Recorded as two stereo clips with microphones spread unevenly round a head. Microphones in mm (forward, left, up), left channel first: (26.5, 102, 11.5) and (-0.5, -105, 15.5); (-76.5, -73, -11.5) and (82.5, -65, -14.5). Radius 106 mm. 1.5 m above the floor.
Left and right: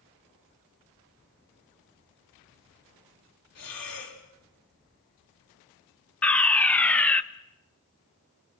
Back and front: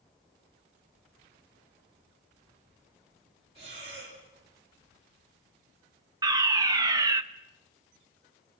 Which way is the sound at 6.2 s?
15° left.